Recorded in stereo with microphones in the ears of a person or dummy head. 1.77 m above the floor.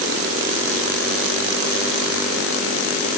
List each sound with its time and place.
Only background noise.